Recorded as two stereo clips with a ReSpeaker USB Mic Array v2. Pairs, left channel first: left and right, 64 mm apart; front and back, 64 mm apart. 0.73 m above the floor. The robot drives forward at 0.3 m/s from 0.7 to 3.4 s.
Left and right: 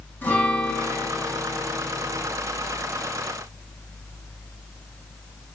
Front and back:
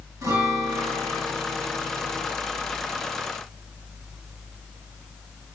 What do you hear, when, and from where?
0.2 s a guitar: 155° left, 5.5 m